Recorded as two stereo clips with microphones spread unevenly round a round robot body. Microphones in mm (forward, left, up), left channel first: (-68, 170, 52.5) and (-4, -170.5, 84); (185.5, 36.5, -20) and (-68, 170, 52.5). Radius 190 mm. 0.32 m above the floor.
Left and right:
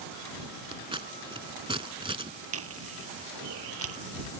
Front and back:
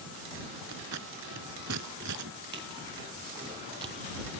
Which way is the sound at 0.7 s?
155° right.